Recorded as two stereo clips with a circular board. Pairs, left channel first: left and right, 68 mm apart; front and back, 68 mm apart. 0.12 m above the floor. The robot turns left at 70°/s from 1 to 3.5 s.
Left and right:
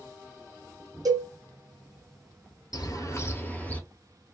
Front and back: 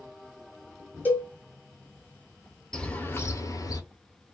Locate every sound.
1.1 s a cowbell: 65° right, 0.8 m; by 1.3 s 80° right, 0.8 m
2.7 s a bird: 75° left, 0.7 m; by 3.8 s 25° left, 0.7 m